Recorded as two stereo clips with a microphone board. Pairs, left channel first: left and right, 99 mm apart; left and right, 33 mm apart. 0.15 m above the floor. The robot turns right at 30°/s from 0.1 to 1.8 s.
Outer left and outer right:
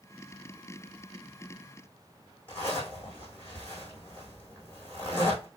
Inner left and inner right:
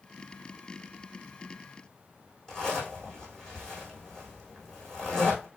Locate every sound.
2.5 s a zipper: 15° left (ahead or behind), 4.5 m